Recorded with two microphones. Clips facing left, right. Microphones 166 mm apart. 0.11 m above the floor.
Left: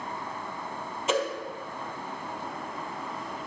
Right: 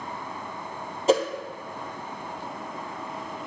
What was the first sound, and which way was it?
A whoosh, 35° right (ahead or behind).